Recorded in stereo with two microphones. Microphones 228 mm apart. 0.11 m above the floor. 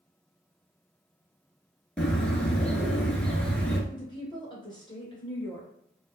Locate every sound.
2.0 s a bird: 5° left (ahead or behind), 0.6 m
3.9 s a woman speaking: 20° left (ahead or behind), 1.2 m